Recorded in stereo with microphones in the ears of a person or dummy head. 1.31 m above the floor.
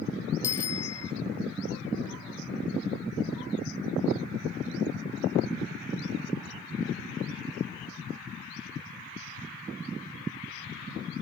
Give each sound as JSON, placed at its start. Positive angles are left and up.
{"t": 0.4, "sound": "a bicycle bell", "side_deg": 15}